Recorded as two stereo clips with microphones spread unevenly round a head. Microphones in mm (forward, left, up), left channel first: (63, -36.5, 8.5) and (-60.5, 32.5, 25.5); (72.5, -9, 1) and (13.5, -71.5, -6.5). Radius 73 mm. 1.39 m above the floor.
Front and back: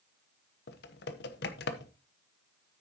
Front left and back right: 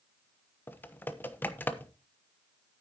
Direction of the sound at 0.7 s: 20° right.